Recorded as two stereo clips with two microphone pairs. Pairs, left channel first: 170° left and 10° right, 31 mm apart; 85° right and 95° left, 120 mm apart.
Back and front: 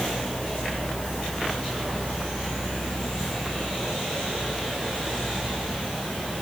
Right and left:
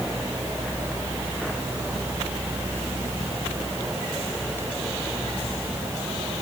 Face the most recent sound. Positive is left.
No sound to turn to.